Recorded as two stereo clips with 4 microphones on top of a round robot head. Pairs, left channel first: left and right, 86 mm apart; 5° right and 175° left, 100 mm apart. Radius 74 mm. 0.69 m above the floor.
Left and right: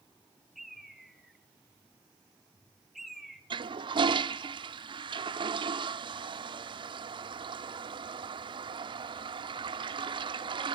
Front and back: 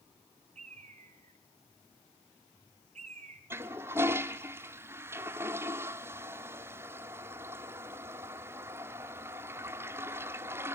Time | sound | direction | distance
0.6 | a bird | 175° right | 3.5 m
3.5 | a toilet flushing | 115° right | 1.0 m